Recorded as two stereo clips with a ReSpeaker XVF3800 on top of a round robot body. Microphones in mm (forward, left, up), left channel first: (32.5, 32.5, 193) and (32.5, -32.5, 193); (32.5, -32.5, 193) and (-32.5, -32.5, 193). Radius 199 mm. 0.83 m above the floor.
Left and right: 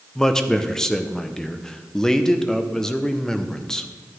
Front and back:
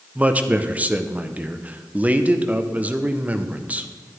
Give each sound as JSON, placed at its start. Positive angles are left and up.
{"t": 0.1, "sound": "a man speaking", "azimuth_deg": 160, "distance_m": 0.8}